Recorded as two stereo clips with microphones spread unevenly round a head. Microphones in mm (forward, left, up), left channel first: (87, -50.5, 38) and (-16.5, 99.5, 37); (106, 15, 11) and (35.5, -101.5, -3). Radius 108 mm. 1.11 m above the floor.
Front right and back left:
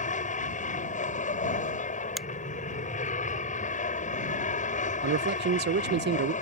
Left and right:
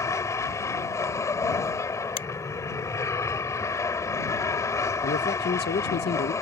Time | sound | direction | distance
0.0 | an aircraft | 10° right | ?
2.2 | a finger snap | 35° left | ?
5.0 | a man speaking | 95° left | ?